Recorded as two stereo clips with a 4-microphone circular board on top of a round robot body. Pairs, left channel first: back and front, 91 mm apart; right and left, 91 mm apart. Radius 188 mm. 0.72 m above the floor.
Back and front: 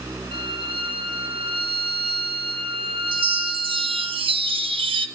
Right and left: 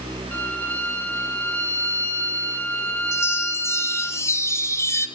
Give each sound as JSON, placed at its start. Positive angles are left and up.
{"t": 0.3, "sound": "a violin", "azimuth_deg": -15, "distance_m": 6.0}
{"t": 3.1, "sound": "a chime", "azimuth_deg": -30, "distance_m": 1.8}